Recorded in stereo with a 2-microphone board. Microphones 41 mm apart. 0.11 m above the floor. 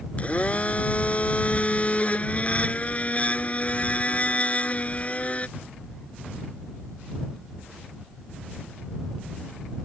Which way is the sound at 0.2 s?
35° left (ahead or behind).